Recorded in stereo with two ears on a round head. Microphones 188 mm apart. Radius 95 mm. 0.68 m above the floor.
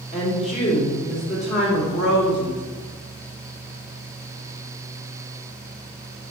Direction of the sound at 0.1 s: 35° left (ahead or behind).